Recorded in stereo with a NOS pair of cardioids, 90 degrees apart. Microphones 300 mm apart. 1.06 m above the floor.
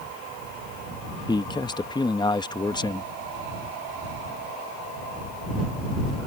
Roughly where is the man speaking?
Ahead.